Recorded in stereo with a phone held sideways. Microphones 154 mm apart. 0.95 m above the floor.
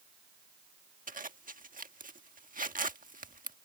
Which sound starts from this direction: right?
A zipper, at 1.1 s.